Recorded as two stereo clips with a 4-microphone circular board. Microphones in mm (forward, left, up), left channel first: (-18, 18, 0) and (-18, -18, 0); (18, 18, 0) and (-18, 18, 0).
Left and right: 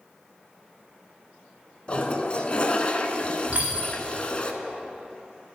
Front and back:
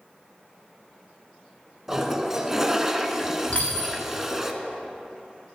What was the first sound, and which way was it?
A toilet flushing, 110° left.